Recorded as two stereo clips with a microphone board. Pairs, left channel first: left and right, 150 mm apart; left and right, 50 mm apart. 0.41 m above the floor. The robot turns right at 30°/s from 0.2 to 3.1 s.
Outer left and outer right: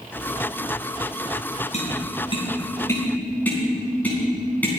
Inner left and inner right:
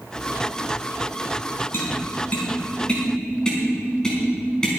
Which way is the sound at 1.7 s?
50° left (ahead or behind).